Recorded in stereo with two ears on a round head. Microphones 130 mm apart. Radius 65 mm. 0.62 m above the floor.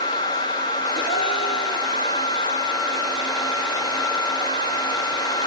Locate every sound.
0.9 s a gasp: 40° left (ahead or behind), 1.5 m